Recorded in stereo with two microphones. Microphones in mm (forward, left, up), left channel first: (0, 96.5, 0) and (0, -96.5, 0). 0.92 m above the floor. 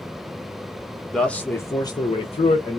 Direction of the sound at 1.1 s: 5° left (ahead or behind).